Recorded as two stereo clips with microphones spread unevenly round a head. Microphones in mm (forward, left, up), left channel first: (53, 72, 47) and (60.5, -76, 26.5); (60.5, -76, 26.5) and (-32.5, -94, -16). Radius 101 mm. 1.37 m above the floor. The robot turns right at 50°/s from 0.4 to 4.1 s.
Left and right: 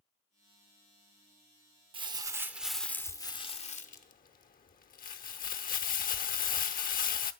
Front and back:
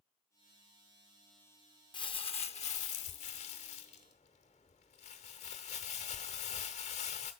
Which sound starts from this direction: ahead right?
Crumpling, at 1.9 s.